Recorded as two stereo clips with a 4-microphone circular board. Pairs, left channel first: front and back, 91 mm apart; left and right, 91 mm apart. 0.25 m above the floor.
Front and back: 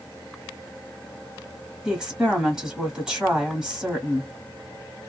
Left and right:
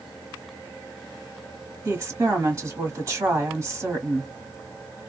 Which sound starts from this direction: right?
A woman speaking, at 1.9 s.